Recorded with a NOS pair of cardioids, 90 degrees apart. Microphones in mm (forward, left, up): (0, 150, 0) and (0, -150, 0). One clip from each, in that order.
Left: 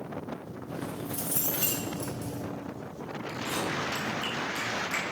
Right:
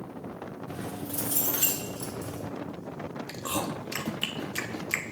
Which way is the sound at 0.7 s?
40° right.